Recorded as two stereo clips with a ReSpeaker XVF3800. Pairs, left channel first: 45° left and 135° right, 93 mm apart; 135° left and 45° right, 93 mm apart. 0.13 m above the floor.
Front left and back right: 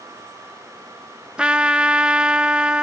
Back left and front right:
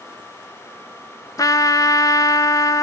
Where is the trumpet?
150° left, 0.5 m.